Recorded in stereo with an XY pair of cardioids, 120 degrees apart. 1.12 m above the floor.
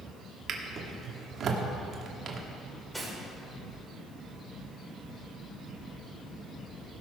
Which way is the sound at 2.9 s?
Straight ahead.